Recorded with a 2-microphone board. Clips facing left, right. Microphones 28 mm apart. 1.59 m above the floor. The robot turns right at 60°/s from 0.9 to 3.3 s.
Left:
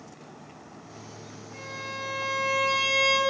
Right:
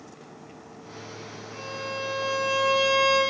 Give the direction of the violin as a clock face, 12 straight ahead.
12 o'clock.